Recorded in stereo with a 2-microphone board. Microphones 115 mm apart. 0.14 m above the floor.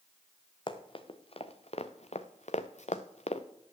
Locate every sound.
0.7 s running footsteps: 45° left (ahead or behind), 1.5 m; by 3.5 s 65° left (ahead or behind), 1.0 m